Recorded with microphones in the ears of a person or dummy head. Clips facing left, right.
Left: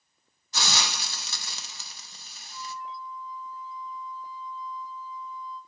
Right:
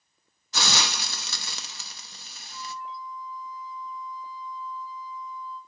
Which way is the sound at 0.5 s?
60° right (ahead or behind).